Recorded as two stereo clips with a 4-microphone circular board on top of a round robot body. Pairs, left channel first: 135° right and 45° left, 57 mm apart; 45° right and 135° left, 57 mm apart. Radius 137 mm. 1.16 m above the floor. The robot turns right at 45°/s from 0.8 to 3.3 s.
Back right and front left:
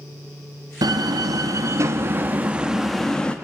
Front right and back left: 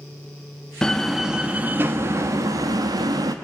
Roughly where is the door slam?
Ahead left.